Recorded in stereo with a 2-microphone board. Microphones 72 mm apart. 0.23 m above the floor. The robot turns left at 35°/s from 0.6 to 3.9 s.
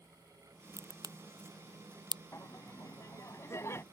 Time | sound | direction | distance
0.8 | a crack | 45° right (ahead or behind) | ?
2.3 | laughter | 45° left (ahead or behind) | ?